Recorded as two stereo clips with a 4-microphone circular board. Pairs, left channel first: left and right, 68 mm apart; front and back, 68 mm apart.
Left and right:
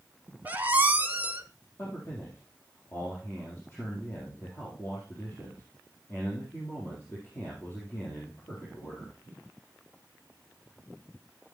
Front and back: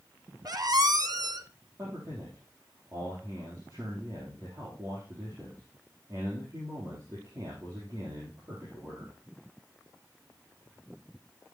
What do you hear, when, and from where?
0.5 s a squeak: 155° right, 0.8 m
1.8 s a man speaking: 145° left, 4 m